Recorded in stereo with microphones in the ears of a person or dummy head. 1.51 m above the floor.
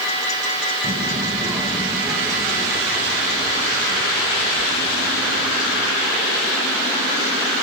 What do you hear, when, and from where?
0.8 s a child speaking: 20° right (ahead or behind), 0.7 m; by 5.9 s centre (ahead or behind), 4.5 m